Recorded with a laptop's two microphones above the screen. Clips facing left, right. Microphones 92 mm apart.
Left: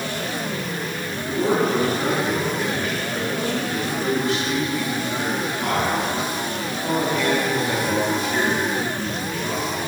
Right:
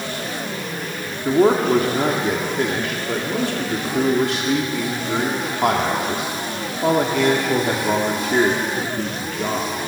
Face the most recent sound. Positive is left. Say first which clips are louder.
# right 5 dB
turn(degrees=-80)